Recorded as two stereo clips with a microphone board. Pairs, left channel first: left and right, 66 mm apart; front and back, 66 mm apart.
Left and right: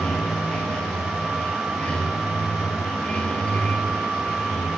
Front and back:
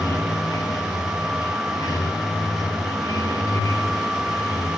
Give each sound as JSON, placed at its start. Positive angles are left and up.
{"t": 0.0, "sound": "running water", "azimuth_deg": 20, "distance_m": 3.0}